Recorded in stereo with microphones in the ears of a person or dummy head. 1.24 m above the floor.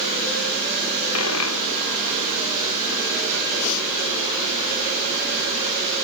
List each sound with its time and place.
1.1 s a dropped coin: 80° left